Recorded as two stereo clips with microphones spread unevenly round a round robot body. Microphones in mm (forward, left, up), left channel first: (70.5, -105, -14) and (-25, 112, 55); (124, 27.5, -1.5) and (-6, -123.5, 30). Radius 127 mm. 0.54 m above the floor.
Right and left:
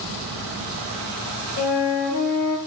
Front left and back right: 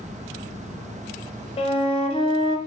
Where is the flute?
15° right, 0.7 m.